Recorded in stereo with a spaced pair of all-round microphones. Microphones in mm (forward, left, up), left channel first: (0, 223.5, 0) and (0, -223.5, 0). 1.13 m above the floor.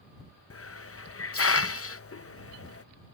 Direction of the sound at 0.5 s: 30° left (ahead or behind).